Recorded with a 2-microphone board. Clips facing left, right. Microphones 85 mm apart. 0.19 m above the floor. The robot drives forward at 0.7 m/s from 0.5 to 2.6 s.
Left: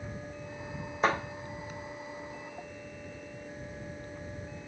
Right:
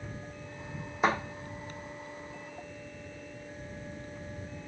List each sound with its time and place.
1.0 s a thud: 5° right (ahead or behind), 3 m